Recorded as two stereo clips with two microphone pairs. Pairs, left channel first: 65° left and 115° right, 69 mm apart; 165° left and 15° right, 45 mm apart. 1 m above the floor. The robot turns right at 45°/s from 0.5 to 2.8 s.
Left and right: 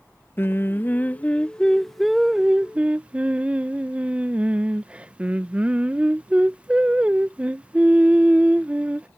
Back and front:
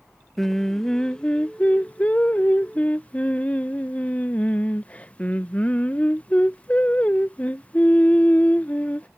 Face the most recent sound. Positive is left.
turn(degrees=-170)